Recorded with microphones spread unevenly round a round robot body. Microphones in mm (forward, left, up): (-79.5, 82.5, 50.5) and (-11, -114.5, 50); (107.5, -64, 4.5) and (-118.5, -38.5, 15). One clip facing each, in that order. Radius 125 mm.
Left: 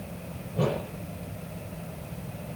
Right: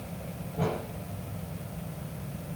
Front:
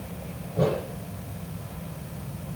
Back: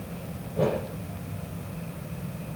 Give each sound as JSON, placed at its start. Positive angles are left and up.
{"t": 0.6, "sound": "a whoosh", "azimuth_deg": 80, "distance_m": 7.5}